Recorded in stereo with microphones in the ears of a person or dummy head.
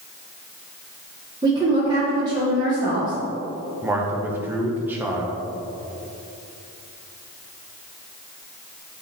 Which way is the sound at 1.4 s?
20° right (ahead or behind).